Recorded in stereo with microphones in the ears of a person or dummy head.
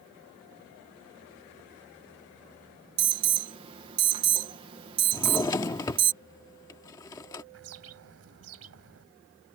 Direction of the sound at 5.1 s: 20° left (ahead or behind).